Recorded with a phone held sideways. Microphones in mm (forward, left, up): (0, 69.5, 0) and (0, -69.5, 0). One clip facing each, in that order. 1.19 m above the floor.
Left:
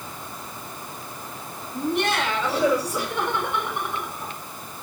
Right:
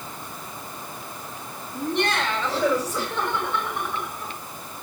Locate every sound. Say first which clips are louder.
1.7 s laughter: left 1 dB; 5° left (ahead or behind), 6 m; by 4.4 s 20° left (ahead or behind), 5.5 m